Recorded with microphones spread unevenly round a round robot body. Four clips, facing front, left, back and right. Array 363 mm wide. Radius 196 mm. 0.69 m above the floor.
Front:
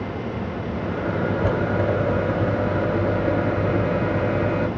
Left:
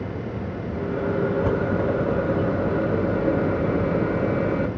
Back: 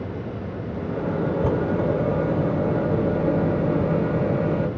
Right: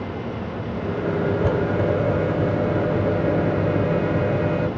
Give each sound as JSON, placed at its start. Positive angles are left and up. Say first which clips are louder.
{"t": 0.7, "sound": "a microwave", "louder": "even, even", "azimuth_deg": 170, "distance_m": 1.9}